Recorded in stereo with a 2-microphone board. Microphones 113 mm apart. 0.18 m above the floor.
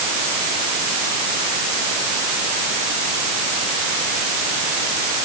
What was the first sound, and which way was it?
Only background noise.